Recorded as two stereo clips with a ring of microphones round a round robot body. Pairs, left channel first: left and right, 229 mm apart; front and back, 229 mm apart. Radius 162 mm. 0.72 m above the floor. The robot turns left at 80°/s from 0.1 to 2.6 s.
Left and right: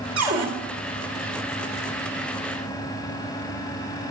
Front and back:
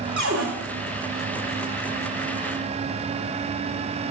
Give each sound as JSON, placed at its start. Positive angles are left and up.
{"t": 0.2, "sound": "a cupboard door", "azimuth_deg": -120, "distance_m": 1.7}